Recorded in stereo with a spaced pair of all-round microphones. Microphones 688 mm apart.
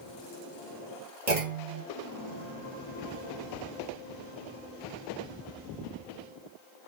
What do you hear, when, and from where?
1.3 s a clunk: 70° right (ahead or behind), 1.4 m